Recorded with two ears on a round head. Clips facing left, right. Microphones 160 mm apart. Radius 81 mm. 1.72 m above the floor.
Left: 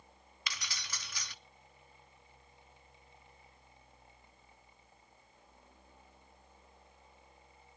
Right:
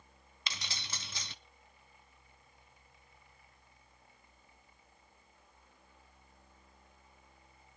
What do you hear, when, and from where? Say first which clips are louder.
0.5 s keys jangling: right 1 dB; 25° right (ahead or behind), 0.7 m